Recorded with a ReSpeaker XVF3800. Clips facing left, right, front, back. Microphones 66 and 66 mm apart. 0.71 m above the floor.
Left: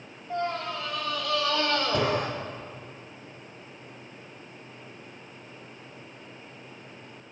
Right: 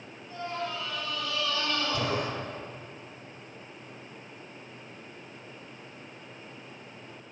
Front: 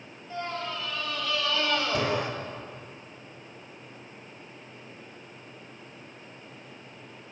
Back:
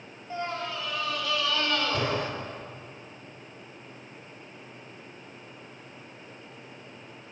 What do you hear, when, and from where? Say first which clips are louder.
0.3 s a scream: left 4 dB, back 1 dB; 110° left, 4 m; by 2.3 s 70° left, 2.5 m